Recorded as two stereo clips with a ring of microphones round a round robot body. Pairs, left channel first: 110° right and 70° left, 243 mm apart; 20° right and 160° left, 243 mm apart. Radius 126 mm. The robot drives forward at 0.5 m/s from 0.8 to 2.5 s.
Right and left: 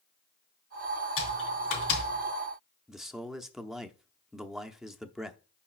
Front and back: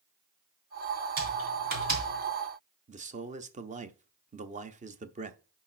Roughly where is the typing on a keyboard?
Behind right.